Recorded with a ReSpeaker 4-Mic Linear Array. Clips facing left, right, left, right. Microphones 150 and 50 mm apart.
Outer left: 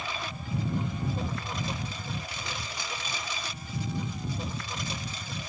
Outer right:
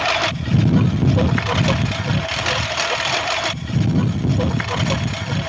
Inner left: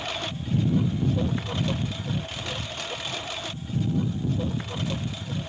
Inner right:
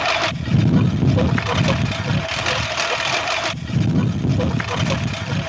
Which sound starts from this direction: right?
A lawn mower, at 0.0 s.